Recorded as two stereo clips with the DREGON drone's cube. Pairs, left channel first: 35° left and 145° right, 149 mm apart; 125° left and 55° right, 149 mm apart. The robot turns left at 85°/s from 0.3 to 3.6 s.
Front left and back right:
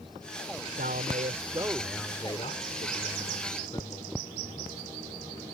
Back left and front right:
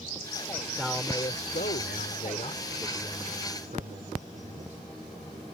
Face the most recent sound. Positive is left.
turn(degrees=-20)